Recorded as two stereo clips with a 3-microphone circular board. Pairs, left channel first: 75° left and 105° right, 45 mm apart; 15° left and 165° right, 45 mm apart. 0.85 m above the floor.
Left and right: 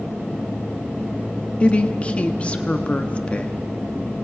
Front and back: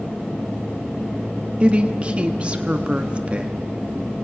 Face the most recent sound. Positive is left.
turn(degrees=135)